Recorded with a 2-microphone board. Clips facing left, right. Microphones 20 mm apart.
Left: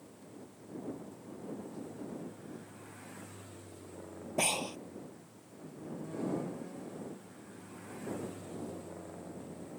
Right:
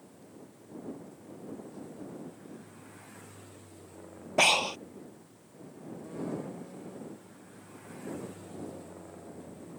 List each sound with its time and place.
4.4 s breathing: 40° right (ahead or behind)